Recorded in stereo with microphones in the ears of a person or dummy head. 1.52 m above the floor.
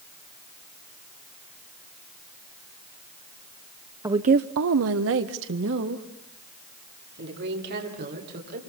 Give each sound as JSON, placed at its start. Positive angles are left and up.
{"t": 4.0, "sound": "a woman speaking", "side_deg": -15, "distance_m": 0.6}